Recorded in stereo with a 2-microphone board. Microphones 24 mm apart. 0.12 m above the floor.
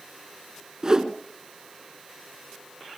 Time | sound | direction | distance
0.8 | a whoosh | 30° right (ahead or behind) | 1.2 m